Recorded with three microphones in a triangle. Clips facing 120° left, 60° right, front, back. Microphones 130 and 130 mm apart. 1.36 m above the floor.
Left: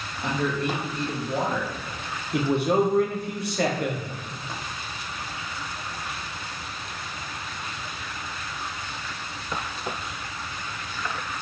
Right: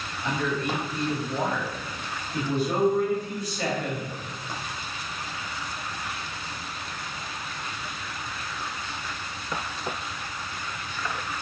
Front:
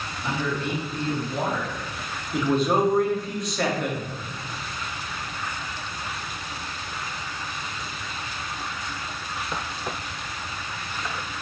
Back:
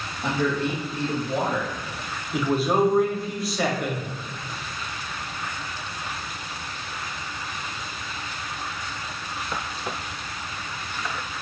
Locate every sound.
0.2 s a man speaking: 145° left, 1.0 m
2.3 s a man speaking: 95° left, 0.8 m